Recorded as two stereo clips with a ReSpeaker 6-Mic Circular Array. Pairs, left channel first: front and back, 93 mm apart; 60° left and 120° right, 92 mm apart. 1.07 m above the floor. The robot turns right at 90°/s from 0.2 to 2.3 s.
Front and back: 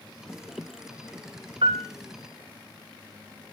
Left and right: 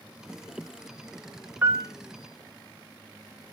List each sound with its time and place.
1.6 s a piano: 170° left, 0.6 m; by 1.9 s 165° right, 0.6 m